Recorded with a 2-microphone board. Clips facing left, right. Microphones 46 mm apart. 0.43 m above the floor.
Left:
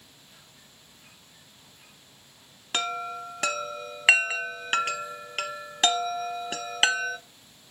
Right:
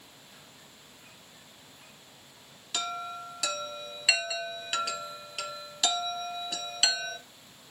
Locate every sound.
2.7 s a chime: 40° left (ahead or behind), 0.7 m